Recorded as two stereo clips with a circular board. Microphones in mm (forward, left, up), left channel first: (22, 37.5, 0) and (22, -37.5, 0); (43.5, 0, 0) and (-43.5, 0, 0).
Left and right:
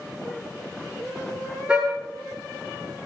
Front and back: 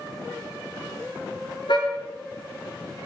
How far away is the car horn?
About 8.5 m.